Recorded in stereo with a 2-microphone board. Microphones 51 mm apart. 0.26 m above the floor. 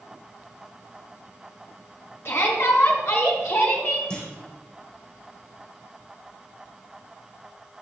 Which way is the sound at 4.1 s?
20° left (ahead or behind).